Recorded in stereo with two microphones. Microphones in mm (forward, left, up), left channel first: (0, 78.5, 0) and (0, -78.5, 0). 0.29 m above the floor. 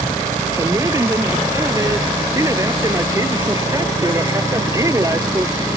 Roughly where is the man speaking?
Right.